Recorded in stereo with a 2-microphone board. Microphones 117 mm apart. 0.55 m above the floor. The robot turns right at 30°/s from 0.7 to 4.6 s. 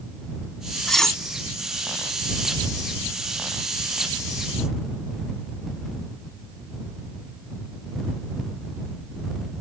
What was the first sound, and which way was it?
Cutlery clinking, 5° left (ahead or behind).